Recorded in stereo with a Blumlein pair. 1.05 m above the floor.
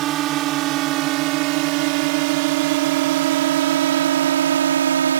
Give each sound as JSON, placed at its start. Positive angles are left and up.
{"t": 0.0, "sound": "a drone", "azimuth_deg": -35}